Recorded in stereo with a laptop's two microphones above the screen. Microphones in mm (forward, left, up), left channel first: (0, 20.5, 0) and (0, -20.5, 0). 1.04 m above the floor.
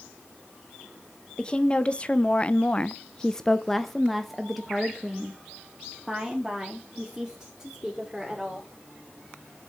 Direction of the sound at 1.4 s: 20° left (ahead or behind).